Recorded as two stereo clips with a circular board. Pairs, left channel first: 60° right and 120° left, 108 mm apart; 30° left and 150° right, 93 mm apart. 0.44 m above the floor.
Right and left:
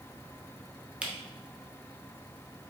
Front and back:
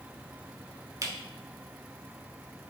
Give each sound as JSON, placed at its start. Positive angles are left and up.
{"t": 1.0, "sound": "a camera shutter", "azimuth_deg": -165, "distance_m": 0.8}